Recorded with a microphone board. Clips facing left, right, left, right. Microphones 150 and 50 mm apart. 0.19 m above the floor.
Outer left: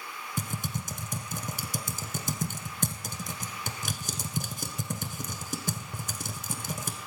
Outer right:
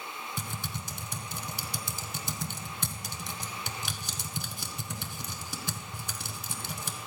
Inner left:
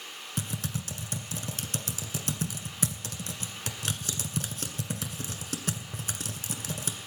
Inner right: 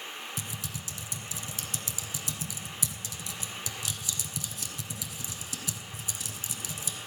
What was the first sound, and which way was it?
Typing on a keyboard, 50° left (ahead or behind).